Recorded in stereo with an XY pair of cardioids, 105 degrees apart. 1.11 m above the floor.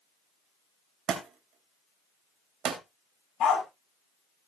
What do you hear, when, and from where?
1.1 s a thud: 65° right, 2.5 m
3.4 s a dog barking: 70° left, 3 m